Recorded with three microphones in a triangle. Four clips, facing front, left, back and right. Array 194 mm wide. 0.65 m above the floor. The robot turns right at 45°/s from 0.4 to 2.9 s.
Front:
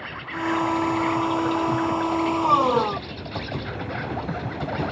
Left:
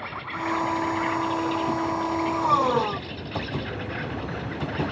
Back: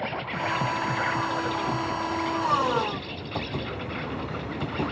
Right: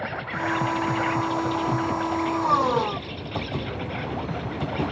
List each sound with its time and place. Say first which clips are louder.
0.0 s an insect: right 2 dB, even; 135° right, 1.6 m; by 4.9 s 25° right, 1.6 m